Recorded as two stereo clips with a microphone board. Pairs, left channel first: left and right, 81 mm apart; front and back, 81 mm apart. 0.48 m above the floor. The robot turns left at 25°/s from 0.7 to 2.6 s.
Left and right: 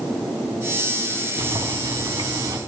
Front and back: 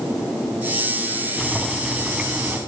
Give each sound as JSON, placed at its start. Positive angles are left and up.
{"t": 1.4, "sound": "boiling", "azimuth_deg": -85, "distance_m": 3.0}